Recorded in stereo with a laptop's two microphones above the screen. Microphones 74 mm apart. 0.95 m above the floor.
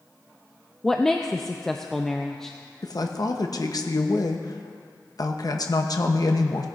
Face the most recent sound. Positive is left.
turn(degrees=60)  # may be behind; listen again after turning